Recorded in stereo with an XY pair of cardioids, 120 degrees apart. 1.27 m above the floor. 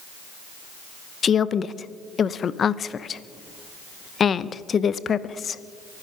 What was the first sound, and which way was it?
A woman speaking, 40° left.